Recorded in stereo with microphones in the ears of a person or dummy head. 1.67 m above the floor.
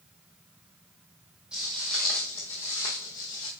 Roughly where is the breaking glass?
No breaking glass in this recording.